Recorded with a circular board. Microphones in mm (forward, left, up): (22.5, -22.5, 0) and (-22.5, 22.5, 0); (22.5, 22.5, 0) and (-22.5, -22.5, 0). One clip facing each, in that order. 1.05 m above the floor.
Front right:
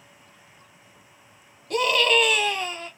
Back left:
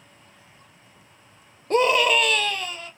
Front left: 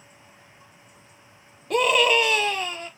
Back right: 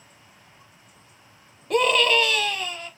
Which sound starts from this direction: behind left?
A scream, at 1.7 s.